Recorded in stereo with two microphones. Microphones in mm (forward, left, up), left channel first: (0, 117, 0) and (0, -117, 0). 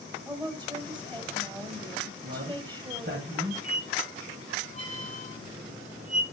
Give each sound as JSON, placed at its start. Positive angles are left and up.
{"t": 0.2, "sound": "a woman speaking", "side_deg": -20, "distance_m": 2.0}
{"t": 2.2, "sound": "a man speaking", "side_deg": -50, "distance_m": 2.5}
{"t": 3.6, "sound": "a squeak", "side_deg": -70, "distance_m": 5.5}